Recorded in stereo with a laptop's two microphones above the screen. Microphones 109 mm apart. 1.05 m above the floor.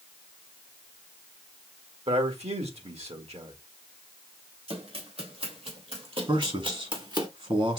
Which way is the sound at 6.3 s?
60° right (ahead or behind).